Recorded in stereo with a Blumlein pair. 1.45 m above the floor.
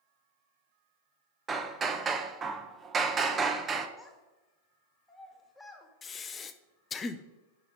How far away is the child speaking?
About 2 m.